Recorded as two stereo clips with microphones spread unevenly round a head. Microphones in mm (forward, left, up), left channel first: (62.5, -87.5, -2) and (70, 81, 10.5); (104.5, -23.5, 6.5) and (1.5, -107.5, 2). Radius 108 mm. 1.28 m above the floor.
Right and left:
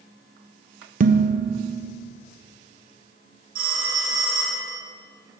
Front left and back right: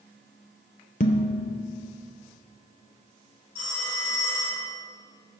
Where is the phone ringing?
50° left, 4 m.